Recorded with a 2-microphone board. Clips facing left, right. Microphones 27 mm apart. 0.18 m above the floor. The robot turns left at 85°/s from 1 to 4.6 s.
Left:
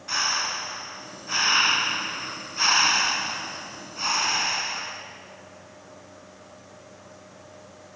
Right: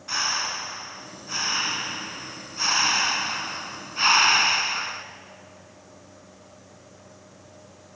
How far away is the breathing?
About 1.1 m.